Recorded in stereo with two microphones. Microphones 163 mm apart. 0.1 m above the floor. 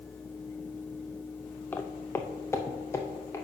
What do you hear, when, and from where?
1.7 s footsteps: 10° left (ahead or behind), 0.7 m; by 3.5 s 15° left (ahead or behind), 1.8 m